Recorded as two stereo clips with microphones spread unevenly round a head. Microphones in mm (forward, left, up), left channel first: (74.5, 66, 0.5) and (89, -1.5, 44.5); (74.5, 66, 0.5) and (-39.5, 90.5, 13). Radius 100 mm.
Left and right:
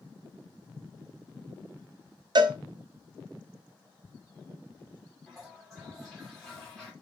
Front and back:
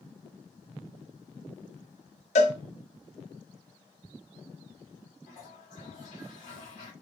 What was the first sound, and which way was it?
A cowbell, 40° right.